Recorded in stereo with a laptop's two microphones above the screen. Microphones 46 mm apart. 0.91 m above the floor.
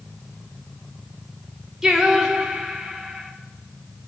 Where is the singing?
10° right (ahead or behind), 0.7 m.